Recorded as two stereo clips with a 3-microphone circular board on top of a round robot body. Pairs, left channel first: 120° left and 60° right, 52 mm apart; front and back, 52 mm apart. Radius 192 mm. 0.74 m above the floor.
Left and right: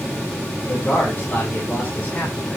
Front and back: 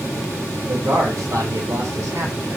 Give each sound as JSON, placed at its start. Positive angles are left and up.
{"t": 0.7, "sound": "a man speaking", "azimuth_deg": 175, "distance_m": 3.5}